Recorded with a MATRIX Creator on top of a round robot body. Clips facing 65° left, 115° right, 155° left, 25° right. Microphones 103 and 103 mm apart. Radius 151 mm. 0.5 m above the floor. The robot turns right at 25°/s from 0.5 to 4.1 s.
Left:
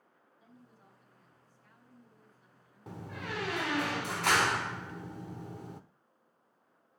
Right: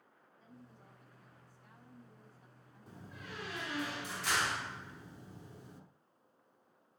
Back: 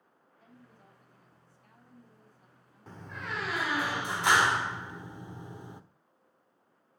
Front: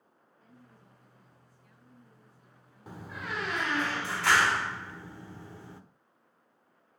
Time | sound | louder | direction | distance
0.4 | a woman speaking | right 2 dB, back 1 dB | 145° left | 5.5 m
2.9 | a door slam | left 9 dB, front 1 dB | 55° left | 1.3 m